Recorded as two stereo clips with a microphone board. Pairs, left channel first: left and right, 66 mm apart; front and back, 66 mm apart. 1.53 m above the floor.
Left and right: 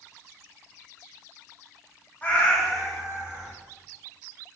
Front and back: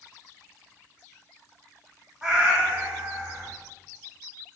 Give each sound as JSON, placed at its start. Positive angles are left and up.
{"t": 2.2, "sound": "a cat meowing", "azimuth_deg": 115, "distance_m": 0.9}